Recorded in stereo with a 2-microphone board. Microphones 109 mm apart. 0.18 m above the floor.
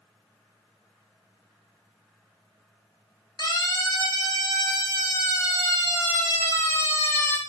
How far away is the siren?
About 9.5 m.